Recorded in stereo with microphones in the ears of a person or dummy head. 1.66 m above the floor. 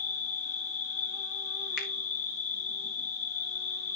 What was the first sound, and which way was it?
An insect, 65° left (ahead or behind).